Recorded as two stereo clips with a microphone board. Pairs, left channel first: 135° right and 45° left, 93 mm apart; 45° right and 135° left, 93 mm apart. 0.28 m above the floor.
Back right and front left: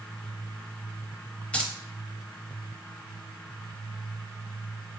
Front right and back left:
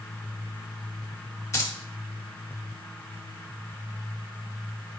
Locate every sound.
1.5 s keys jangling: 70° right, 0.7 m